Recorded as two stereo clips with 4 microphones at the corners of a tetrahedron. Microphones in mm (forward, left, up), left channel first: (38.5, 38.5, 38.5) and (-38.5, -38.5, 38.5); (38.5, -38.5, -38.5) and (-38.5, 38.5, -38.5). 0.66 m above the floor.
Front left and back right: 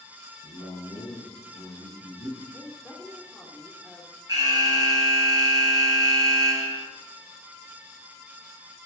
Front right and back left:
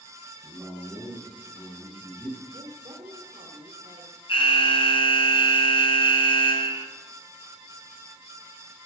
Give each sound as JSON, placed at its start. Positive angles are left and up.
{"t": 0.4, "sound": "a man speaking", "azimuth_deg": 40, "distance_m": 5.0}
{"t": 2.5, "sound": "a woman speaking", "azimuth_deg": 125, "distance_m": 1.8}
{"t": 4.3, "sound": "an alarm", "azimuth_deg": -80, "distance_m": 4.5}